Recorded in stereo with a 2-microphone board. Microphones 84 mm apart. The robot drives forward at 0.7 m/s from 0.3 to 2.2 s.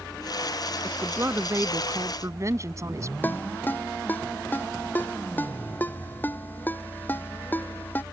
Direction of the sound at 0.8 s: 30° right (ahead or behind).